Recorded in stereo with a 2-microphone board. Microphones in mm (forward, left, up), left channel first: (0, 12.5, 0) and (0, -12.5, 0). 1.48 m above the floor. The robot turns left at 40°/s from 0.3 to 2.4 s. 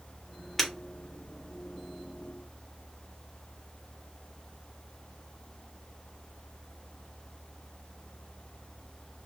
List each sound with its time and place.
0.6 s breaking glass: 5° left (ahead or behind), 1.4 m; by 0.7 s centre (ahead or behind), 1.4 m